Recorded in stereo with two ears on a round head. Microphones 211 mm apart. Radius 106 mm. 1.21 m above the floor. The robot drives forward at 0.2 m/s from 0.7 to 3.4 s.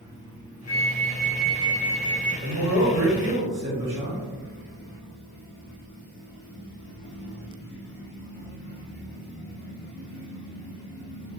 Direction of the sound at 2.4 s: 25° right (ahead or behind).